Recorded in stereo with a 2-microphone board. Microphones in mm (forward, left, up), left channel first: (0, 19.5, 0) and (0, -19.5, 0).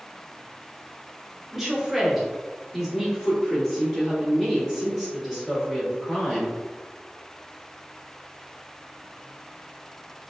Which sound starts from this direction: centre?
A woman speaking, at 1.5 s.